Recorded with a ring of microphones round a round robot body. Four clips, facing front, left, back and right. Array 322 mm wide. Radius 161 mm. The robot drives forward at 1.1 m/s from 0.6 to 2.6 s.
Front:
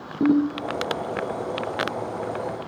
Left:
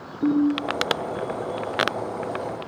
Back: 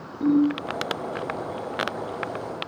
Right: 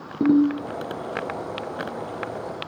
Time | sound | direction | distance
0.2 | a ringtone | 60° right | 4 m